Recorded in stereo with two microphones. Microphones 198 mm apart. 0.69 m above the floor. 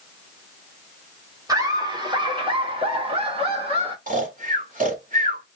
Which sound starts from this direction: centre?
Laughter, at 1.5 s.